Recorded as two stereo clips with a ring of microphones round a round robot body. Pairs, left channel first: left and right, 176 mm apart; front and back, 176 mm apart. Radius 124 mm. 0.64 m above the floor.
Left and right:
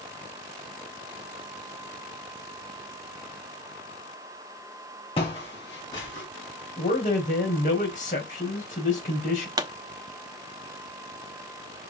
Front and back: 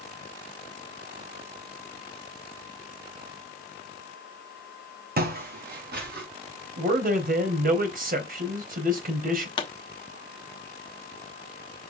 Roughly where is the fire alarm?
No fire alarm in this recording.